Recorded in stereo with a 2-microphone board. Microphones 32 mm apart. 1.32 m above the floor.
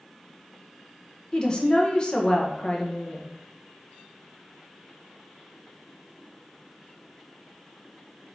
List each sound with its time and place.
1.3 s a woman speaking: 25° left (ahead or behind), 0.7 m